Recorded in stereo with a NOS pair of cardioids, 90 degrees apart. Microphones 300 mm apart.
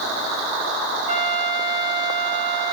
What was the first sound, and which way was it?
A trumpet, 20° left.